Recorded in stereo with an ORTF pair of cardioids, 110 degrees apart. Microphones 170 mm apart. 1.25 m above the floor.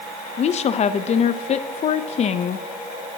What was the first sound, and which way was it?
A woman speaking, 40° left.